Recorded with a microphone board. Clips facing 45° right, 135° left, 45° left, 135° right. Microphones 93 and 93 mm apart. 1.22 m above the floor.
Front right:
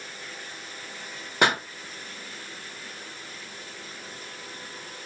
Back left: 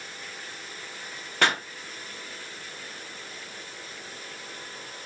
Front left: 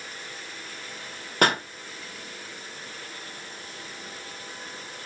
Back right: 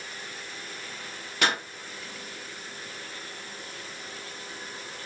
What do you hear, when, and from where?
1.4 s a pop: 25° left, 0.6 m